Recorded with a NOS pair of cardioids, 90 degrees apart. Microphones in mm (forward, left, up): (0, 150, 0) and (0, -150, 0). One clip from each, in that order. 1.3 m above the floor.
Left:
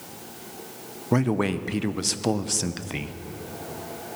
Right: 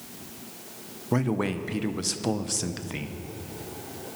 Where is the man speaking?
15° left, 0.7 m.